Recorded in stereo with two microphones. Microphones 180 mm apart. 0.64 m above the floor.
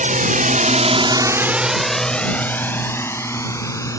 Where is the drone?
45° right (ahead or behind); by 4.0 s 15° left (ahead or behind).